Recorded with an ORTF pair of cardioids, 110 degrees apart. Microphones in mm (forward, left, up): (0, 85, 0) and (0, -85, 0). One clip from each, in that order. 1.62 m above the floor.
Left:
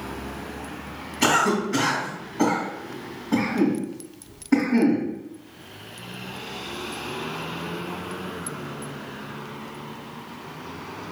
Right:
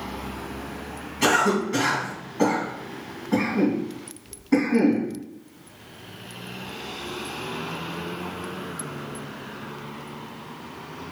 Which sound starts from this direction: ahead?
A cough, at 1.2 s.